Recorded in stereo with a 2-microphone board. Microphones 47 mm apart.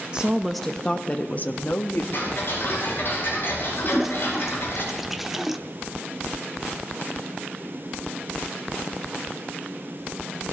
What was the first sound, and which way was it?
A woman speaking, 20° right (ahead or behind).